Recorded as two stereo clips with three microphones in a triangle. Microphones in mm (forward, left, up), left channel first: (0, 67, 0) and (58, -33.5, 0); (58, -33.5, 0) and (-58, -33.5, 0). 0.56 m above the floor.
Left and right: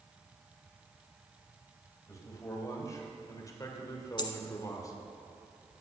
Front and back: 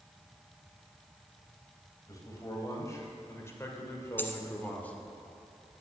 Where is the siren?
I don't hear a siren.